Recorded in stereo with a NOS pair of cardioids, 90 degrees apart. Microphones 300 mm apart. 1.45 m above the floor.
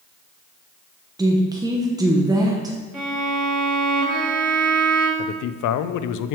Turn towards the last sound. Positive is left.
turn(degrees=70)